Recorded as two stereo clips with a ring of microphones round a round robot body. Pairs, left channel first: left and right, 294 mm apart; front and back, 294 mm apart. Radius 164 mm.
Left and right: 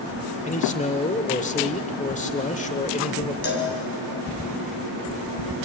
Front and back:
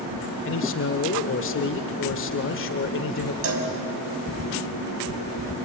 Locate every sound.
0.5 s a man speaking: 30° left, 1.5 m
3.4 s a cowbell: 145° left, 3 m